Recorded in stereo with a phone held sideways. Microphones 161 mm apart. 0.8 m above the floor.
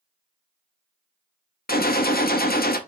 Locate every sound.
1.7 s a gunshot: 70° left (ahead or behind), 0.6 m